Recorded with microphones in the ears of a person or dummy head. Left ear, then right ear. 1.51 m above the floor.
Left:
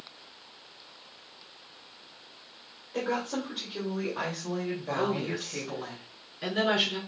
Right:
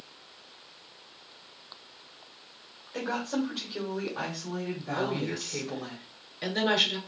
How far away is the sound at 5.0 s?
About 3 m.